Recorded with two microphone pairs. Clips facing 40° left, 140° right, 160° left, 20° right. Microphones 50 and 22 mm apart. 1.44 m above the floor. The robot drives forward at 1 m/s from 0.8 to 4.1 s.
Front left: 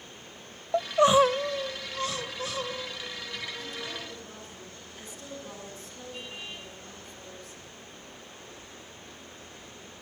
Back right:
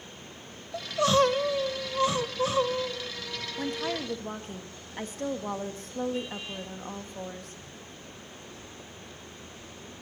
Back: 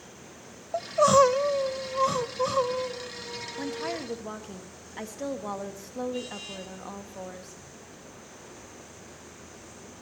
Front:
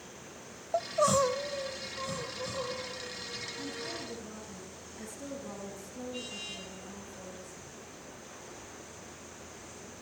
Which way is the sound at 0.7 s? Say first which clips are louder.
Front left 3 dB, back 7 dB; 70° left.